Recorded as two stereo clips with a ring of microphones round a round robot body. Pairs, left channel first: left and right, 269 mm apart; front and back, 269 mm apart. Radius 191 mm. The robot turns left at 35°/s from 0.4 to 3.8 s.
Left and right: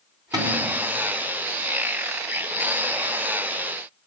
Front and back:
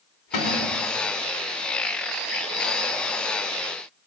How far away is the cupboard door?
About 4 m.